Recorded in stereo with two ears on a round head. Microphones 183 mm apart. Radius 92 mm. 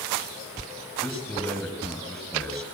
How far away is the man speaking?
About 8 m.